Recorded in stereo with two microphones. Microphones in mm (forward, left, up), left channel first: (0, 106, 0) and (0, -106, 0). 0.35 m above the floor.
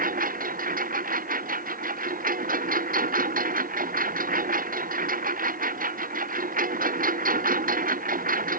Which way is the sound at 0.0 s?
40° right (ahead or behind).